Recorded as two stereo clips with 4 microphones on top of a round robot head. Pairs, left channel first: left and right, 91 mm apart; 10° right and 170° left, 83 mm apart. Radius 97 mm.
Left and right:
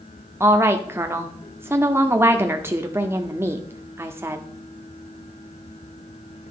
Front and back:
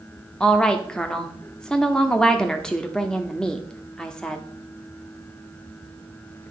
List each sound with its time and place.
0.4 s a woman speaking: 80° right, 0.8 m